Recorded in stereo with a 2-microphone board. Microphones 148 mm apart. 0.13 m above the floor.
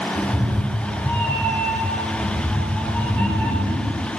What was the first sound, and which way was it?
A cat meowing, 10° left (ahead or behind).